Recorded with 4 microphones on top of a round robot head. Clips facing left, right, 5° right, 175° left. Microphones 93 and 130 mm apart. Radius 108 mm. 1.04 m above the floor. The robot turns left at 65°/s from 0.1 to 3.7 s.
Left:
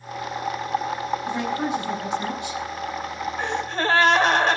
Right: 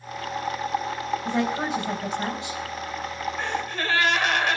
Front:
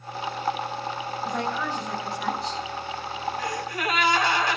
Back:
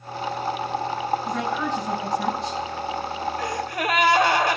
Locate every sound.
1.2 s a woman speaking: 70° right, 4 m; by 2.6 s 155° right, 4 m
3.4 s a gasp: 165° left, 2.5 m; by 4.6 s 145° left, 2.5 m